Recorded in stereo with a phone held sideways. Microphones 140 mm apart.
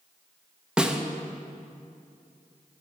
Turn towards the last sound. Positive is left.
turn(degrees=-5)  # may be behind; listen again after turning